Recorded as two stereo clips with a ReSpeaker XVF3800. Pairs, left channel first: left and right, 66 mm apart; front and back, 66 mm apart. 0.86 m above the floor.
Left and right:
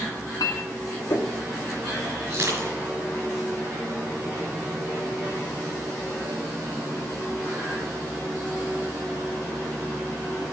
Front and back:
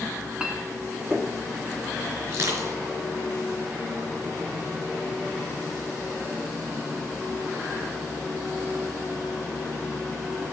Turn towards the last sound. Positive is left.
turn(degrees=-135)